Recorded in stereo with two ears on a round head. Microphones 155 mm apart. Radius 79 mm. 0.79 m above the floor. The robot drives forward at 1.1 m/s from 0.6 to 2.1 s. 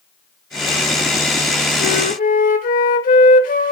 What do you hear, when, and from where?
1.8 s a flute: 65° left (ahead or behind), 1.2 m; by 3.7 s 50° left (ahead or behind), 1.3 m